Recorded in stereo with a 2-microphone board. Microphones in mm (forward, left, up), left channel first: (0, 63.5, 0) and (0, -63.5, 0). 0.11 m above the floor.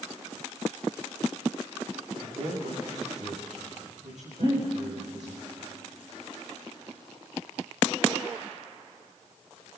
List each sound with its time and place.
2.2 s a man speaking: 70° right (ahead or behind), 7.5 m
4.4 s breathing: 35° right (ahead or behind), 6.5 m